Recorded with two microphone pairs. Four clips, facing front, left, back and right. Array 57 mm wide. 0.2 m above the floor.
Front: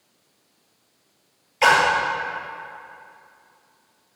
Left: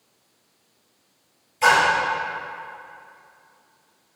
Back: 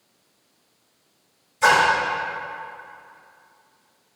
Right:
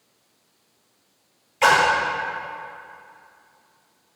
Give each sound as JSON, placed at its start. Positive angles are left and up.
{"t": 1.6, "sound": "a splash", "azimuth_deg": -35, "distance_m": 2.5}